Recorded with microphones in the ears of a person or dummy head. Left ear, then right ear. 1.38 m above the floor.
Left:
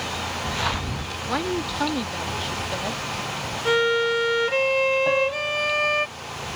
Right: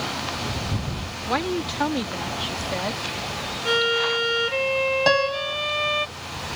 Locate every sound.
1.3 s a woman speaking: 15° right (ahead or behind)
3.6 s a violin: 25° left (ahead or behind)
5.1 s a piano: 75° right (ahead or behind)